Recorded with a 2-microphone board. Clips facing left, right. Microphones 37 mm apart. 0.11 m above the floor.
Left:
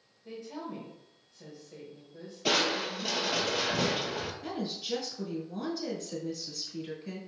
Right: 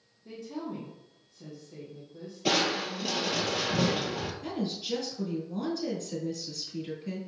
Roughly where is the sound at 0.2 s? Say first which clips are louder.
Right 2 dB; centre.